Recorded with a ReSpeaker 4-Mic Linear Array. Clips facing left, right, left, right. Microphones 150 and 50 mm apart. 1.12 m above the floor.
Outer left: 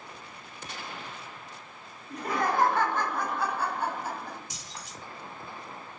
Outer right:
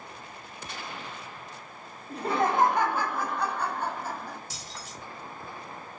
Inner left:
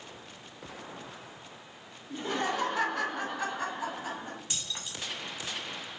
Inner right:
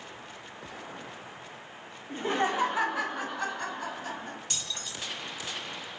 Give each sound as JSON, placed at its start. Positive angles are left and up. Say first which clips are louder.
{"t": 2.1, "sound": "laughter", "louder": "outer right 2 dB, inner right 3 dB", "side_deg": -30, "distance_m": 0.7}
{"t": 4.5, "sound": "keys jangling", "louder": "outer right 2 dB, inner right 1 dB", "side_deg": 15, "distance_m": 1.0}